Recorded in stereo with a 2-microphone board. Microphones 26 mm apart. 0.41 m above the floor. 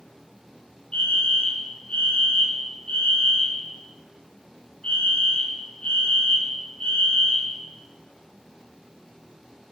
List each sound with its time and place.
0.9 s a fire alarm: 45° left (ahead or behind), 4 m